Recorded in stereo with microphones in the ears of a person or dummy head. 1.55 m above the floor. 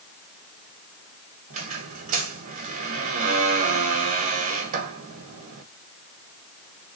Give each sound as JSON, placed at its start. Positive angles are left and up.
{"t": 1.5, "sound": "a squeak", "side_deg": -40, "distance_m": 1.1}